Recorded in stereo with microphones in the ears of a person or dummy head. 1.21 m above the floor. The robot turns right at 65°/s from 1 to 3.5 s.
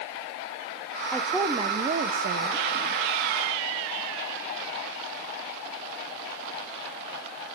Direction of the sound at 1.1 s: 170° left.